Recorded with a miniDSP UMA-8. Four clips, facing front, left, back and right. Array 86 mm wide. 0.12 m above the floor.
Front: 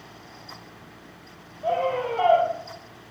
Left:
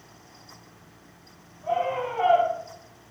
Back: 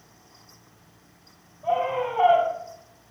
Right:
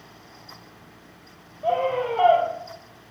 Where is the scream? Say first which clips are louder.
Right 3 dB, even; 60° right, 3.5 m.